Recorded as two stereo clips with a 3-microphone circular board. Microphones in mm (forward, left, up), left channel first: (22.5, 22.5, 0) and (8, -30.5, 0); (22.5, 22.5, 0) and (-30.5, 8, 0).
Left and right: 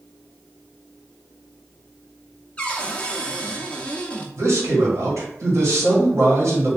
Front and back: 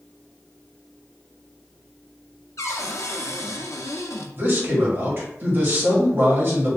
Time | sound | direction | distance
2.6 | a cupboard door | 5° left | 0.6 m
4.4 | a man speaking | 120° right | 1.6 m